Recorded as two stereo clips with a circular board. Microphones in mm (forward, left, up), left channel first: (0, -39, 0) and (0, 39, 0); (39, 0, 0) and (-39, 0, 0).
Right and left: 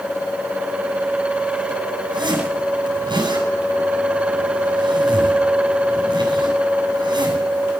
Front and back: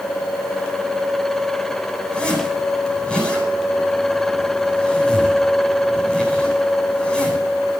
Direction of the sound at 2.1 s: 80° left.